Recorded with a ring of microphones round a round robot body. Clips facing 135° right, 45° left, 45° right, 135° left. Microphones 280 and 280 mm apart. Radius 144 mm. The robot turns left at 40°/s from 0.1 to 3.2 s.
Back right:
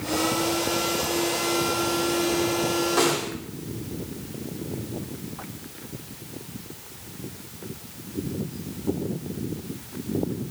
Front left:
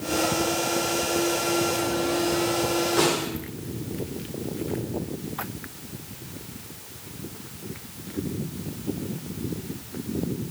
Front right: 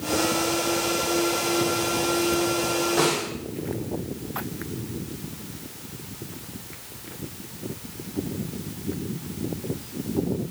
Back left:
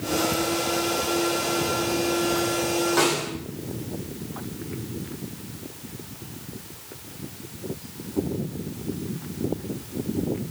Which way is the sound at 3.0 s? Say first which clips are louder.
Even, even; 145° left.